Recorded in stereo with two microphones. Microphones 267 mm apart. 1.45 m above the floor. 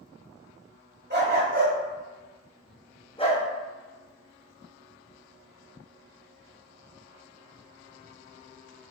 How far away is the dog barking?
About 1.4 m.